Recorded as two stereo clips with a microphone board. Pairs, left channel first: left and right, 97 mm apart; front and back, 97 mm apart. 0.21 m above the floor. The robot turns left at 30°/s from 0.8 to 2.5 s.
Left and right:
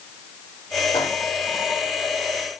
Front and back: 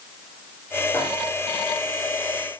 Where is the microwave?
70° left, 8 m; by 1.1 s 65° left, 8 m.